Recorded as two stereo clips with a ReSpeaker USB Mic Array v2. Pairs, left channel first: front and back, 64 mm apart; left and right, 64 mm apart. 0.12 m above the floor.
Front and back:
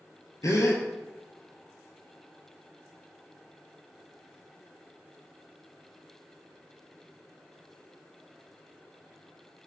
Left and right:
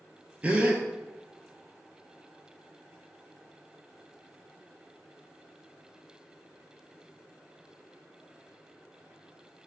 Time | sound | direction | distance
0.4 | a gasp | 25° right | 0.6 m